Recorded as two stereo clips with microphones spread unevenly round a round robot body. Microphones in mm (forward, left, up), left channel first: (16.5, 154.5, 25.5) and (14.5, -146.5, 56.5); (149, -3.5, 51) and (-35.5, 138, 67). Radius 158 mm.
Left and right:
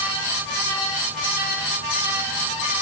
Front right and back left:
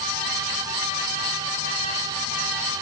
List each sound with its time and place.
Only background noise.